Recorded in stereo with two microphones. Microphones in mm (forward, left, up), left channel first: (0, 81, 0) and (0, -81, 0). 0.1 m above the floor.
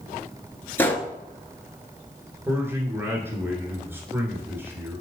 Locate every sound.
0.8 s a gunshot: 15° left (ahead or behind), 0.9 m
2.5 s a man speaking: 15° right (ahead or behind), 1.6 m